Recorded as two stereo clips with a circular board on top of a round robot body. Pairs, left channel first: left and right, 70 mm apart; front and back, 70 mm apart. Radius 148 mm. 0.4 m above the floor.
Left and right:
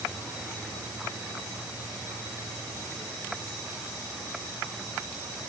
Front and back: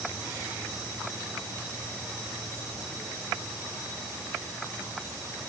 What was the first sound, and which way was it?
Only background noise.